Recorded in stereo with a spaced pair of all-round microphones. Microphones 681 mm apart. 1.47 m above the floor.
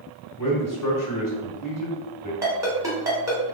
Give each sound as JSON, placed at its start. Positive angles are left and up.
{"t": 0.4, "sound": "a man speaking", "side_deg": 30, "distance_m": 1.1}
{"t": 2.4, "sound": "a ringtone", "side_deg": -5, "distance_m": 1.3}